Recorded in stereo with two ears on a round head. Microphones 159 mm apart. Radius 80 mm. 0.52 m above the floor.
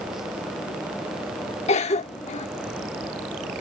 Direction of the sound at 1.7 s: 40° left (ahead or behind).